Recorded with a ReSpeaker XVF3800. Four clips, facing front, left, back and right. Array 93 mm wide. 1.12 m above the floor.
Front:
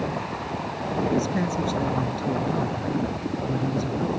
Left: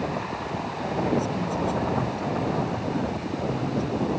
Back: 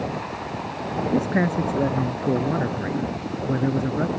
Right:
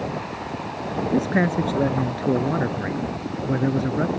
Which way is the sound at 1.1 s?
120° right.